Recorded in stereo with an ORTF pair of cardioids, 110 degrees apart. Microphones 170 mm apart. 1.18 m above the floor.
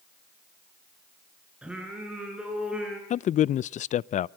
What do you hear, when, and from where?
1.6 s singing: 5° right, 8.5 m
3.1 s a man speaking: 45° left, 0.5 m